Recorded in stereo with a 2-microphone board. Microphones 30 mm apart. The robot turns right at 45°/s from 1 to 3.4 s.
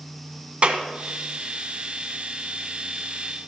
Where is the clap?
40° right (ahead or behind), 1.5 m.